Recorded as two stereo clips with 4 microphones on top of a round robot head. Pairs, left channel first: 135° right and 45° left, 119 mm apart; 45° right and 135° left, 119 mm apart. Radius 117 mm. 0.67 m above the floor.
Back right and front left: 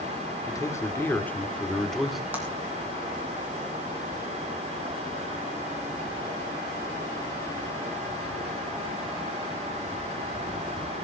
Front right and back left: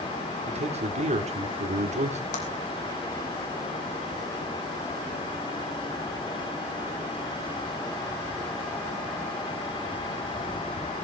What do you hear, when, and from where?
0.5 s a man speaking: 160° left, 2 m; by 2.2 s 130° left, 1.9 m
2.3 s a clap: 30° right, 5 m